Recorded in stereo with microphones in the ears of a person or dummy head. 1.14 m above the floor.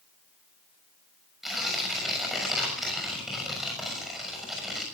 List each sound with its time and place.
1.4 s tearing paper: centre (ahead or behind), 6.5 m